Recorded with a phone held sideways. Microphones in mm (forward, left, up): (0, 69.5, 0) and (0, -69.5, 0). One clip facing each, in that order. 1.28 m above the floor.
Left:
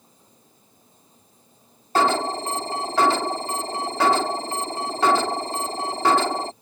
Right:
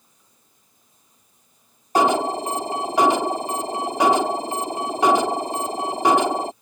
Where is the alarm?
15° right (ahead or behind).